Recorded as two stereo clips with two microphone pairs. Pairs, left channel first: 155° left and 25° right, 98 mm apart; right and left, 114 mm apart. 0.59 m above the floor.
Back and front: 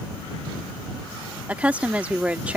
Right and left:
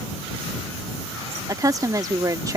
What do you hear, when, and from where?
1.5 s a woman speaking: 45° left